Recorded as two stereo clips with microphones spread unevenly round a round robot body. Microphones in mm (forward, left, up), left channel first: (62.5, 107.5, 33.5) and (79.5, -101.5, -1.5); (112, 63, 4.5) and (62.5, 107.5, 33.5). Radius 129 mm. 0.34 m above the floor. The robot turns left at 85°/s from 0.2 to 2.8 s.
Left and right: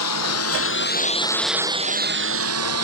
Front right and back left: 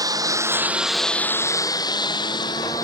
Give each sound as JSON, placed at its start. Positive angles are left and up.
{"t": 0.0, "sound": "a lawn mower", "azimuth_deg": 115}